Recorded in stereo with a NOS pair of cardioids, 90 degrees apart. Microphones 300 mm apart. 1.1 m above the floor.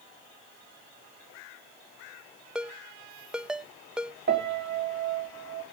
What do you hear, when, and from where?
2.5 s a ringtone: 5° right, 0.6 m
4.3 s a piano: 35° right, 3 m